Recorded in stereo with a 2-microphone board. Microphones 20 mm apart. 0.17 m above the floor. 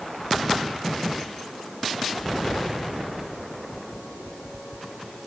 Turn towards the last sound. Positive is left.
No sound to turn to.